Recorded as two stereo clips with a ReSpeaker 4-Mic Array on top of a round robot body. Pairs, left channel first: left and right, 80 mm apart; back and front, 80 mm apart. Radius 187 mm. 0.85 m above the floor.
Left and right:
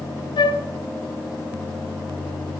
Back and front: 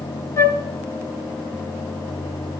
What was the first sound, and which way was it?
A flute, 120° left.